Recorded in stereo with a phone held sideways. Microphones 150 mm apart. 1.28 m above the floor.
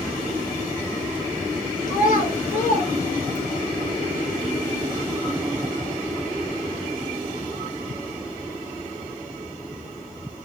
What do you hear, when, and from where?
1.9 s a child speaking: 65° left (ahead or behind), 1.1 m